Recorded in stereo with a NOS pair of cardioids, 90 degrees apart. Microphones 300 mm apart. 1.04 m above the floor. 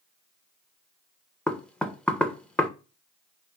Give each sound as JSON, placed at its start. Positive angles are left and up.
{"t": 1.5, "sound": "knocking", "azimuth_deg": 5, "distance_m": 0.5}